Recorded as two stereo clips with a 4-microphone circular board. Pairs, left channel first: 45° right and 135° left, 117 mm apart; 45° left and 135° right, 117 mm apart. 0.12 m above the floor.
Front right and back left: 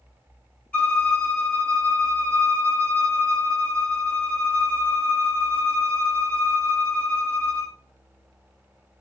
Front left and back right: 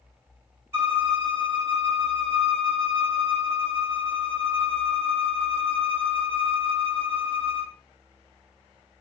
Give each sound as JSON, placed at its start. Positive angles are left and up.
{"t": 0.7, "sound": "a violin", "azimuth_deg": -110, "distance_m": 0.9}